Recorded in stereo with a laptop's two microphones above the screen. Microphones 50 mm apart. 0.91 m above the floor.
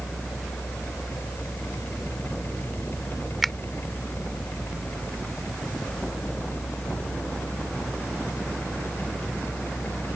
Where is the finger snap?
Centre (ahead or behind).